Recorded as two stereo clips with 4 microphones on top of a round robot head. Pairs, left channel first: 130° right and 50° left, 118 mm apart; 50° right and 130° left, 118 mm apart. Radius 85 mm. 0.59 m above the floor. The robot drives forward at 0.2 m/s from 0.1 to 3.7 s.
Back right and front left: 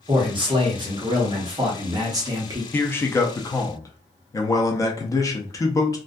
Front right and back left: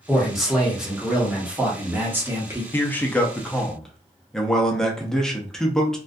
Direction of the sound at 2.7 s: 85° right.